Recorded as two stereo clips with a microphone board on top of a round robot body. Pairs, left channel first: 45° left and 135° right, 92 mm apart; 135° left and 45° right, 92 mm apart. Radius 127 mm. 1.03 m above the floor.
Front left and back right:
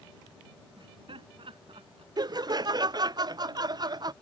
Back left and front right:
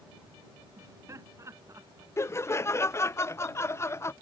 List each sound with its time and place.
0.8 s laughter: 105° right
2.2 s laughter: 165° right